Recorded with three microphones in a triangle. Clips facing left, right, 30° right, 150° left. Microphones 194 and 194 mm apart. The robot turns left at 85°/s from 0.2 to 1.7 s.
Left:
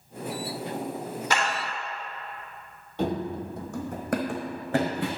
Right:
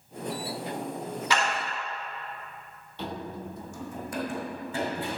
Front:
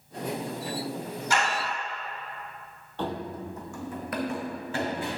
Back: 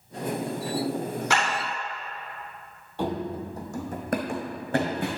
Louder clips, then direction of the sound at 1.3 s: Even, even; 135° left.